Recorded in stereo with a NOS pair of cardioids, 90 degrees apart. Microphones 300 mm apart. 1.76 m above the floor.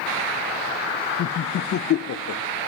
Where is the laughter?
50° left, 0.7 m.